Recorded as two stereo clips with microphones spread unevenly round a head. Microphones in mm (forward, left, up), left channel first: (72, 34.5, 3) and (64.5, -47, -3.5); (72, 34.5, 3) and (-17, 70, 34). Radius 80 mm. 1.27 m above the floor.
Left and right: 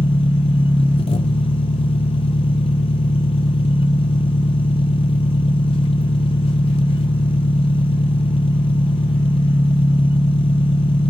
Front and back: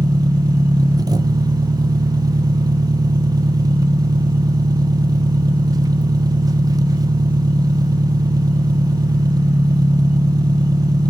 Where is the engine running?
100° left, 0.8 m.